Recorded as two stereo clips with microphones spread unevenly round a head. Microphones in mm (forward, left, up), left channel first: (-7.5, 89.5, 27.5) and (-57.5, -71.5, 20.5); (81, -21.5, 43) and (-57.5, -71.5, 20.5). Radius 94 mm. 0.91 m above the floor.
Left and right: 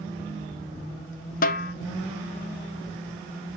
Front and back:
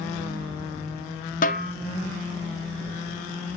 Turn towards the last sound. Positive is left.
turn(degrees=50)